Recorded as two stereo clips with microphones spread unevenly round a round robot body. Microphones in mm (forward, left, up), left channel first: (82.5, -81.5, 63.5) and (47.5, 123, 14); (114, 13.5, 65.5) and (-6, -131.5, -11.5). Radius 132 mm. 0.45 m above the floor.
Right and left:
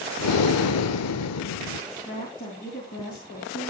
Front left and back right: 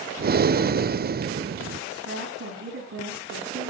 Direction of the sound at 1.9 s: 140° right.